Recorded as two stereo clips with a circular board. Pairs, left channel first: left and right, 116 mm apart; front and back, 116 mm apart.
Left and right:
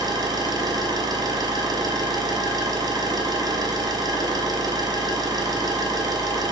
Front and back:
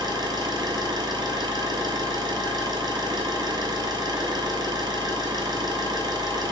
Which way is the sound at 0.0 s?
140° right.